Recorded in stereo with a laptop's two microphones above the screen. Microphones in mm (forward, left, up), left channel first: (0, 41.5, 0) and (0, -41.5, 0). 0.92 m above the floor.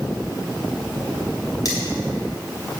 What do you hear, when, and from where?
1.6 s cutlery clinking: 45° left (ahead or behind), 3 m